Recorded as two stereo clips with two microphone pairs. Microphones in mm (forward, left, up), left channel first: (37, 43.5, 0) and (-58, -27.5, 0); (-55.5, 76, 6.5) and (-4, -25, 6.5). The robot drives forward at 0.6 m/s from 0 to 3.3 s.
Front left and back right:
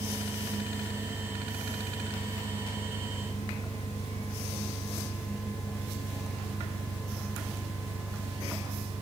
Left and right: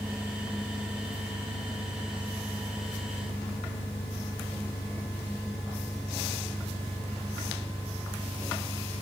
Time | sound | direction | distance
0.0 | an engine running | 35° left | ?